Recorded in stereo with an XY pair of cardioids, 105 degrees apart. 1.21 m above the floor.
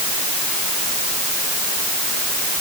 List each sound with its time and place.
Only background noise.